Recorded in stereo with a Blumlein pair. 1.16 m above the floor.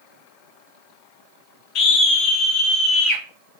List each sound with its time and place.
1.8 s a scream: 35° left, 0.8 m; by 3.2 s 25° left, 1.6 m